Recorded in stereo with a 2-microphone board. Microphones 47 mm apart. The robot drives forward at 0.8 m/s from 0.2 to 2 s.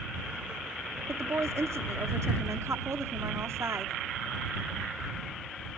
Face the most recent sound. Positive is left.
turn(degrees=-75)  # may be behind; listen again after turning